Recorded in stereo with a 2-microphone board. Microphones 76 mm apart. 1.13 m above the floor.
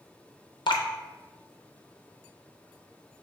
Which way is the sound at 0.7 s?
75° left (ahead or behind).